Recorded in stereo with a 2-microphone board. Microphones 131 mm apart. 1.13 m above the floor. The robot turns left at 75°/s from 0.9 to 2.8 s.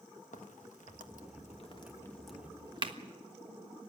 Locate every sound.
0.3 s a crack: 70° left (ahead or behind), 1.4 m; by 3.0 s 35° right (ahead or behind), 1.4 m